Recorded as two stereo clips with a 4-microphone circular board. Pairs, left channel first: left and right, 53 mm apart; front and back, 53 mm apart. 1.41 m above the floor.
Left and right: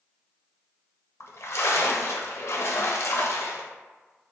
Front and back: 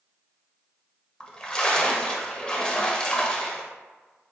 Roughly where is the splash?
Left.